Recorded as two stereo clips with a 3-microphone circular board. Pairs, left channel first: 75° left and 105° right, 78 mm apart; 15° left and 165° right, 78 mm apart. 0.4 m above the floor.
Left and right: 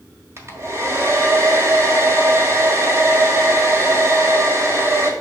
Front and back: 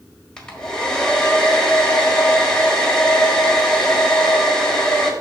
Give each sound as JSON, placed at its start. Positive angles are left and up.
{"t": 0.4, "sound": "a hair dryer", "azimuth_deg": -65, "distance_m": 1.6}